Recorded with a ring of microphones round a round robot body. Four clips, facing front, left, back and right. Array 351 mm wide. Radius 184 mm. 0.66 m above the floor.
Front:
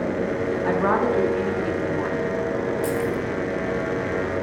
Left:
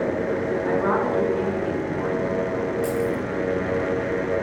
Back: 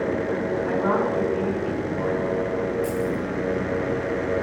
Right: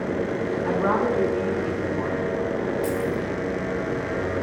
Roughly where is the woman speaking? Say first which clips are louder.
Right 1 dB, front 3 dB; ahead.